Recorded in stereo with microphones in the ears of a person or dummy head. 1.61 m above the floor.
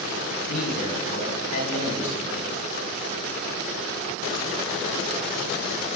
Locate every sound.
0.5 s a man speaking: 50° left (ahead or behind), 5 m